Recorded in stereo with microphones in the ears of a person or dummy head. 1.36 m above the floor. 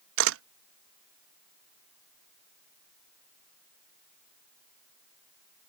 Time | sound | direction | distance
0.2 | a camera shutter | 70° right (ahead or behind) | ?